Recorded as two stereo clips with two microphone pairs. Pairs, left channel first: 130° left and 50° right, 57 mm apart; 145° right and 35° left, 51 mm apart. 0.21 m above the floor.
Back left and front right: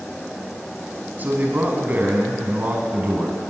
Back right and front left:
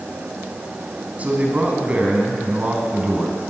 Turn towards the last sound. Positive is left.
turn(degrees=-10)